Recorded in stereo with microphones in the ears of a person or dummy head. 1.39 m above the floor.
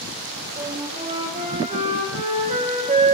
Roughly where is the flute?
Right.